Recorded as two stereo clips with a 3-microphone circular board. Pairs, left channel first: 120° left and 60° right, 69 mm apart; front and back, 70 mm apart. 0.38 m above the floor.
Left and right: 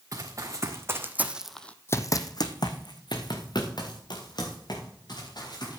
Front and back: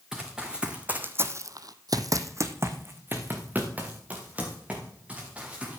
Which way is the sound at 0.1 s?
100° right.